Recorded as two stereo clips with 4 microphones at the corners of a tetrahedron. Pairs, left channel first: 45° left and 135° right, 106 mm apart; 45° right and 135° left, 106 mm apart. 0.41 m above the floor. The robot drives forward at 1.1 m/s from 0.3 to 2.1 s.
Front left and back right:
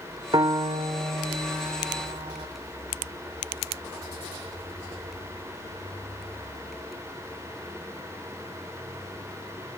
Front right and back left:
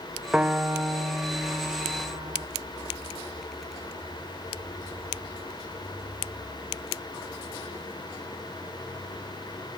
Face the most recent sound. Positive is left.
turn(degrees=-170)